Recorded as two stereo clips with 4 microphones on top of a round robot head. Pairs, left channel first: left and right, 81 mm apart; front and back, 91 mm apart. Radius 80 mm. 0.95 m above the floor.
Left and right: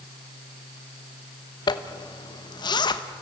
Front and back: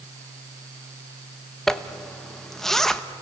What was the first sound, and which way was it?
A zipper, 85° left.